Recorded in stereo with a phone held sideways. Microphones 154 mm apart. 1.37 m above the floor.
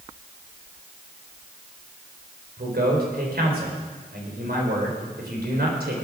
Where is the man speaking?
80° right, 4 m.